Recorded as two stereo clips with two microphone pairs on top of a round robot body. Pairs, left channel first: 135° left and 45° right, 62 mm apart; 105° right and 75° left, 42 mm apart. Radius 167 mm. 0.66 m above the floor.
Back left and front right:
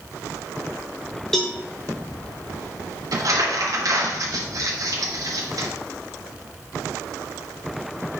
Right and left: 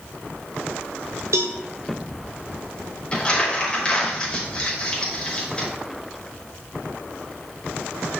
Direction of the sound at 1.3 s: 50° left.